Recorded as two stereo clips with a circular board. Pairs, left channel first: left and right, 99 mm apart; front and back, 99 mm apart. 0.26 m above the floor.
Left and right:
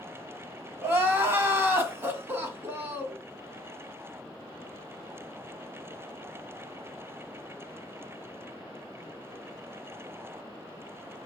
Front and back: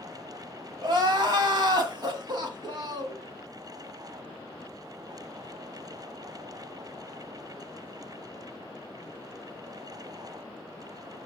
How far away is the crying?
About 1.0 m.